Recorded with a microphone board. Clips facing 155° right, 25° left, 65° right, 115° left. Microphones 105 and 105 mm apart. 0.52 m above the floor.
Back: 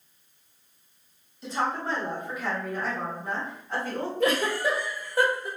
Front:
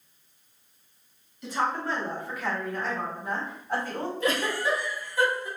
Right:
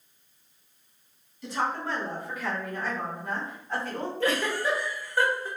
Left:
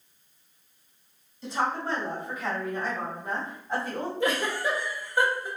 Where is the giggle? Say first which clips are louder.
Back 3 dB, right 1 dB; 175° right, 1.1 m.